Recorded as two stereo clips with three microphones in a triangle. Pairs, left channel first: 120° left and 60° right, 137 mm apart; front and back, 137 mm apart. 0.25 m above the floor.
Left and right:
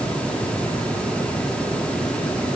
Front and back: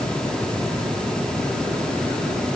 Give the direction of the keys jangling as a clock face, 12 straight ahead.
No keys jangling in this recording.